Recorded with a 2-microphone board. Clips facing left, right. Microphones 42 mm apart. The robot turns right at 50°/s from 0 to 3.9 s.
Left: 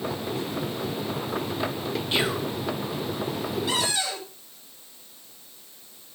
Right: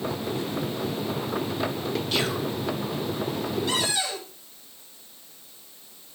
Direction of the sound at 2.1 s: 30° left (ahead or behind).